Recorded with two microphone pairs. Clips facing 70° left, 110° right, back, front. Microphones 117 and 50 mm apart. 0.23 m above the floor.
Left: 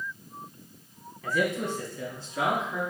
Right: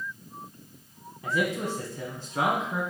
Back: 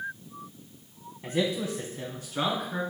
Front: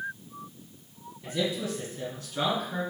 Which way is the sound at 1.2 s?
170° right.